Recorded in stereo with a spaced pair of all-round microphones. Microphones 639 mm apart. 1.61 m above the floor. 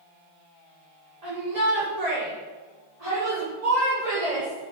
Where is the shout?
85° right, 5.5 m; by 4.7 s 70° right (ahead or behind), 4.5 m.